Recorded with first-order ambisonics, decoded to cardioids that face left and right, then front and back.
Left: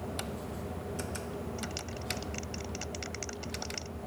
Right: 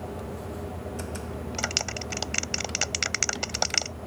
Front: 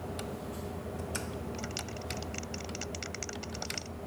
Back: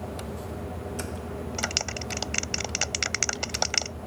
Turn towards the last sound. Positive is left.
turn(degrees=-135)